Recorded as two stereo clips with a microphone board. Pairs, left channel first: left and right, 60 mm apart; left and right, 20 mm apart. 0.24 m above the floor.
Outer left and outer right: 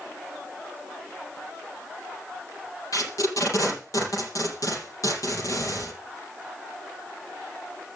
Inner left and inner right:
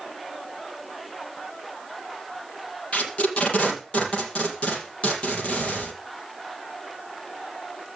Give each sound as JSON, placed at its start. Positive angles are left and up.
{"t": 2.9, "sound": "tape being pulled", "side_deg": 70, "distance_m": 4.5}